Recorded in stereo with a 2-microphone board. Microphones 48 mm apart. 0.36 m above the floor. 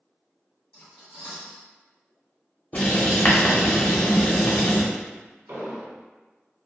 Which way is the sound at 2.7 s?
35° left (ahead or behind).